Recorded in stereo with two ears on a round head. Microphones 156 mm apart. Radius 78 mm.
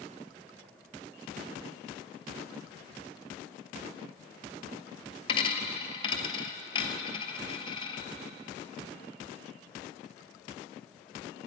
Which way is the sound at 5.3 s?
30° left (ahead or behind).